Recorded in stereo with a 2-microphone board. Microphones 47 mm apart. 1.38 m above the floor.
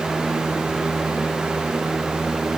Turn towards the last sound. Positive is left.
No sound to turn to.